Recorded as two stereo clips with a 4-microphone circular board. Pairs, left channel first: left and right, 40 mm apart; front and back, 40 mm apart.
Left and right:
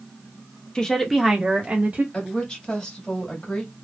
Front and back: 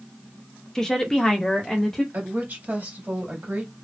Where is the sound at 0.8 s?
55° left, 0.7 m; by 2.0 s 70° right, 0.9 m.